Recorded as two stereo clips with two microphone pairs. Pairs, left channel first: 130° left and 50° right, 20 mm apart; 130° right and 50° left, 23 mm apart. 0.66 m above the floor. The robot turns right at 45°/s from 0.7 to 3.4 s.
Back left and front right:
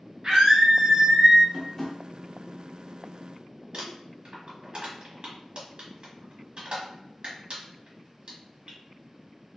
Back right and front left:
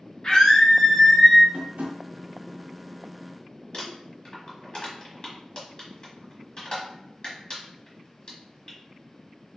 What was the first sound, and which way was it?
A scream, 75° right.